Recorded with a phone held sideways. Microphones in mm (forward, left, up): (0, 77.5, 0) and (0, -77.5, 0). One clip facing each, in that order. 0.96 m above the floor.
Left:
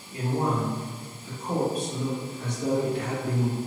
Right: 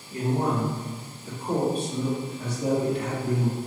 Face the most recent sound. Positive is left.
turn(degrees=5)  # may be behind; listen again after turning